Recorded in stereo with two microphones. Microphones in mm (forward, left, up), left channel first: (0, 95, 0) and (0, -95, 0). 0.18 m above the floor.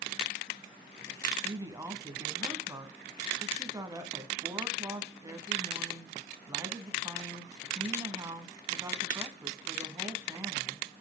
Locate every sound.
1.4 s a woman speaking: 20° right (ahead or behind), 1.4 m